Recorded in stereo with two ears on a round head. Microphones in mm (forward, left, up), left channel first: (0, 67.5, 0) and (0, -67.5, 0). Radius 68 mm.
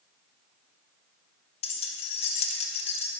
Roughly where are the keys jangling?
Left.